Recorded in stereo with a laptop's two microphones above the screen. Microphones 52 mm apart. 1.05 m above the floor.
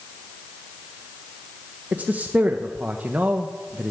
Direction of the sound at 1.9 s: 35° right (ahead or behind).